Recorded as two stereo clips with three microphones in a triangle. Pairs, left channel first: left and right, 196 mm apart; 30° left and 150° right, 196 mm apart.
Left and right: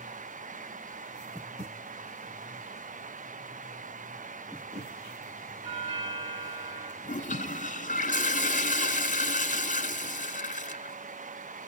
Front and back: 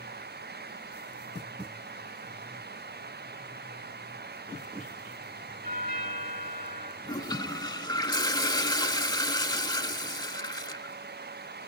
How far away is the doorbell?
About 2.5 m.